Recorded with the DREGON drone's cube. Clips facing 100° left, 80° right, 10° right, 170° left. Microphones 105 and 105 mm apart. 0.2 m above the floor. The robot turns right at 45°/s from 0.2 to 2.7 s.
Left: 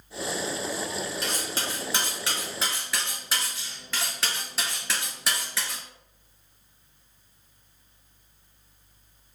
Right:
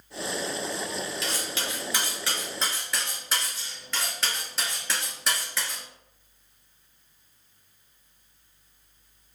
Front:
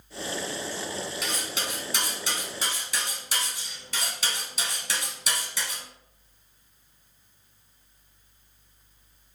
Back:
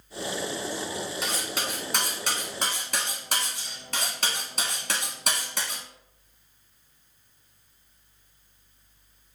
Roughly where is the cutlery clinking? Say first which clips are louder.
Left 1 dB, back 2 dB; behind left.